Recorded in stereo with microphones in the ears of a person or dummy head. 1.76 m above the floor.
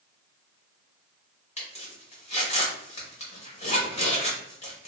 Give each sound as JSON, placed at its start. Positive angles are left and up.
{"t": 1.6, "sound": "a zipper", "side_deg": 35, "distance_m": 1.3}